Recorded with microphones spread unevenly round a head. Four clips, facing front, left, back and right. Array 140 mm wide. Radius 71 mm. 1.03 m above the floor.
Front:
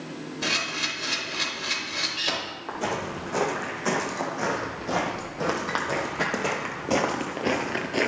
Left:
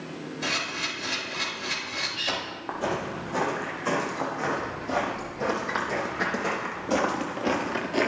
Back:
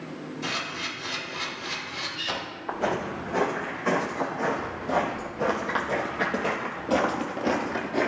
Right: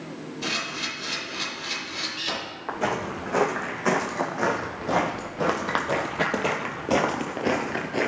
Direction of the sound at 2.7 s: 75° right.